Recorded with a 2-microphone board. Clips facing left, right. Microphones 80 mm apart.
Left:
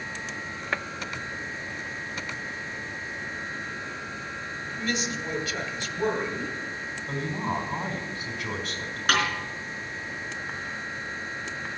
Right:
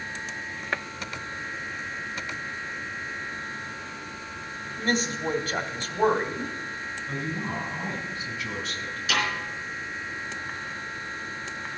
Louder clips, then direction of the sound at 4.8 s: Right 4 dB; 45° right (ahead or behind).